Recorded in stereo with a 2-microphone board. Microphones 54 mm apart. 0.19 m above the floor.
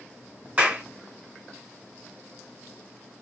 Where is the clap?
30° right (ahead or behind), 1.2 m.